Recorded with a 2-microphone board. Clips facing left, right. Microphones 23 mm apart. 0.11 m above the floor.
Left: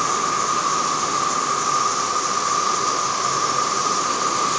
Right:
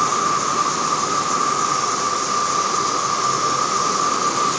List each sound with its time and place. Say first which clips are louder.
0.0 s an insect: right 2 dB; 5° right (ahead or behind), 2.5 m